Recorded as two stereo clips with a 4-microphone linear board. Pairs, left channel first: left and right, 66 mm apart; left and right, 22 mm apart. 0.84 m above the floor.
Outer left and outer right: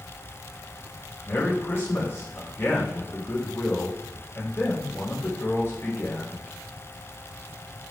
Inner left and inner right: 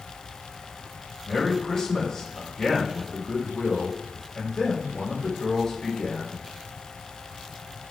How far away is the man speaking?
About 3 m.